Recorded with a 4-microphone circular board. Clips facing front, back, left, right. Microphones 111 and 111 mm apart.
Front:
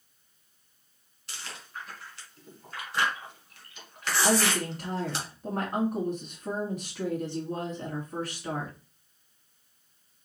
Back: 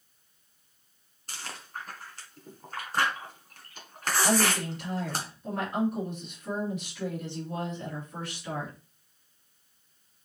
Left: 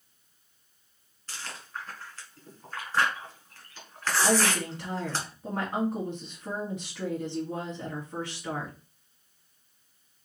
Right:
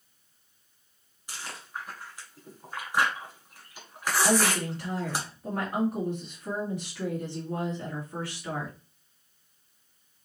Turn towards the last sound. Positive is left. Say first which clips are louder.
# front 1 dB, right 1 dB
turn(degrees=30)